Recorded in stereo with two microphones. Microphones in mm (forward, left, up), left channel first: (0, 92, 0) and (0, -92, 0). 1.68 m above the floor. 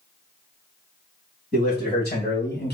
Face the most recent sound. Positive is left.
turn(degrees=65)  # may be behind; listen again after turning